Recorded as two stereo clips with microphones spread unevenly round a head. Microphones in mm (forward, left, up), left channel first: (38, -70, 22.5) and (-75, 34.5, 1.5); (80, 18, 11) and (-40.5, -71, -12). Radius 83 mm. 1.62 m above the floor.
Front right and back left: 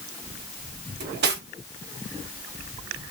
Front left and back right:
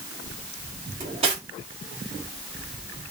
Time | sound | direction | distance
1.0 | cutlery clinking | 155° left | 1.4 m